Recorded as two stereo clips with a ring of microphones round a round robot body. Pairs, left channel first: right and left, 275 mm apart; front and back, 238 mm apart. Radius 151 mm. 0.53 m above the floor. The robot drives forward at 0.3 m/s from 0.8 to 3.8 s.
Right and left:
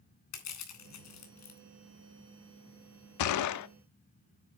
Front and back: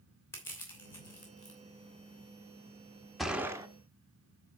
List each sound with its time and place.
0.3 s crushing: 80° right, 3 m; by 1.6 s 85° right, 3 m
3.2 s a gunshot: 90° right, 0.6 m; by 3.7 s 105° right, 0.6 m